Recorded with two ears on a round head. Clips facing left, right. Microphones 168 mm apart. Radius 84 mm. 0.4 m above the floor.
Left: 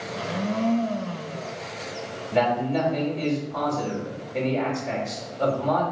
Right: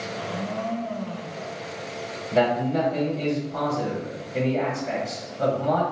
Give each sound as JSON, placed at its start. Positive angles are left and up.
{"t": 0.1, "sound": "a blender", "side_deg": 55, "distance_m": 0.5}
{"t": 2.3, "sound": "a man speaking", "side_deg": 0, "distance_m": 1.5}